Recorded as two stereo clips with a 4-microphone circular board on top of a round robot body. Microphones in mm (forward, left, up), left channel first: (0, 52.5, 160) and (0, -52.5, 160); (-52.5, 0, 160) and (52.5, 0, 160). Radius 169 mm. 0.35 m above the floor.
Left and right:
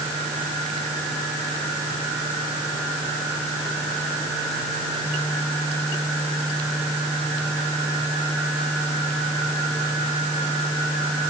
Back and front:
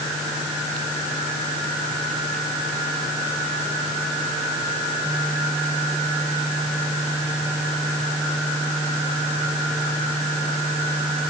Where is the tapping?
No tapping in this recording.